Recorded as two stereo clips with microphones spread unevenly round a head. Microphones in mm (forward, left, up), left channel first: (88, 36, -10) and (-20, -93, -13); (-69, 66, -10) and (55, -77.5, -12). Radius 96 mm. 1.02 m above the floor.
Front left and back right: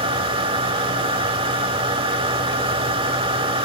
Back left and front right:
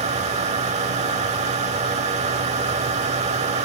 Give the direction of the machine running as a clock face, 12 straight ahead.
3 o'clock.